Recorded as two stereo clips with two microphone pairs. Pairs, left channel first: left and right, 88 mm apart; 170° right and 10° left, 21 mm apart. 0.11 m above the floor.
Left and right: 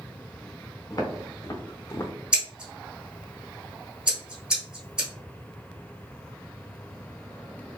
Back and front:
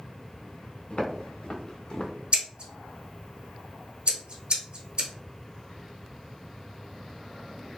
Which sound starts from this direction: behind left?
Footsteps, at 0.9 s.